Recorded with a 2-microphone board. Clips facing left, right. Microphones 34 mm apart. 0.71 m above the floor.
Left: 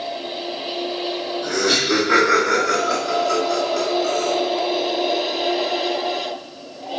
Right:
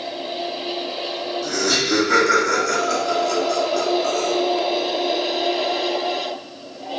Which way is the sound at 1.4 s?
35° left (ahead or behind).